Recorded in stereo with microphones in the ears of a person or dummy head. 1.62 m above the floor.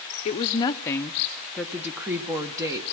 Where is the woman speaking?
40° left (ahead or behind), 0.8 m; by 2.8 s 15° right (ahead or behind), 1.7 m.